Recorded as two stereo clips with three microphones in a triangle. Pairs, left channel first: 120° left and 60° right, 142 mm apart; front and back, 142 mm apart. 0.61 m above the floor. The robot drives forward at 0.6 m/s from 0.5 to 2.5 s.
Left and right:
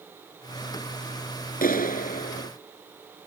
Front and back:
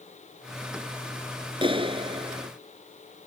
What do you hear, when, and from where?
1.6 s a clap: 125° left; by 2.5 s 130° left